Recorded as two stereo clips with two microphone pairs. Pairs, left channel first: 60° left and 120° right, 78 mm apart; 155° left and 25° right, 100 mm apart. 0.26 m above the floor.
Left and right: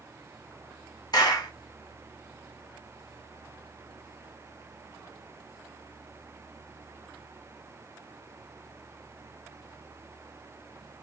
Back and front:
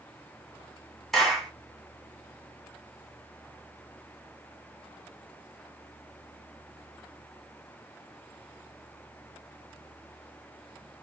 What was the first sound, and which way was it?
A clap, 65° left.